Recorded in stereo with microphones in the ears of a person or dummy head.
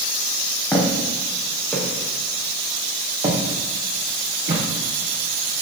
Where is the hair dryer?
I don't hear a hair dryer.